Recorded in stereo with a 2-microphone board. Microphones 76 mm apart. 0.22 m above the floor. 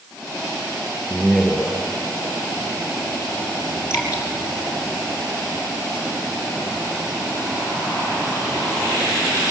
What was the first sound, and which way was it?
A man speaking, 5° left (ahead or behind).